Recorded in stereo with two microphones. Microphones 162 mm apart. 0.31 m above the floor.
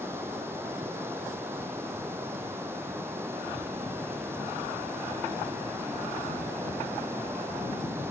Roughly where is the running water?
Centre.